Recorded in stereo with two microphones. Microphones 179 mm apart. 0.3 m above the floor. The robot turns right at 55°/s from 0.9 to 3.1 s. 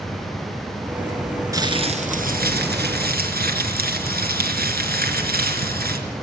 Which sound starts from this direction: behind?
Crumpling, at 1.5 s.